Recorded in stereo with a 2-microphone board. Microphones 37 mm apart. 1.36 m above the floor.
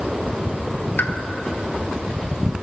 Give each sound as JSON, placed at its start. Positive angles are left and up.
{"t": 1.0, "sound": "a pop", "side_deg": 60, "distance_m": 0.8}